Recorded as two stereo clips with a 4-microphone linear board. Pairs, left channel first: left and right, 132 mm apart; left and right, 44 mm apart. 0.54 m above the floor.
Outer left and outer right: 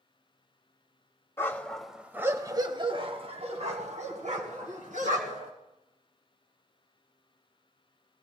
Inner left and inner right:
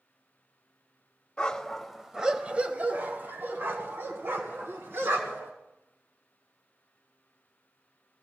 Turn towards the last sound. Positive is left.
turn(degrees=-75)  # may be behind; listen again after turning